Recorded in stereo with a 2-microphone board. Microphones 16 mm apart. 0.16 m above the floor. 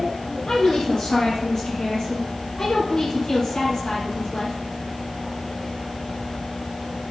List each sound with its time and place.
0.5 s a woman speaking: 45° left (ahead or behind), 5 m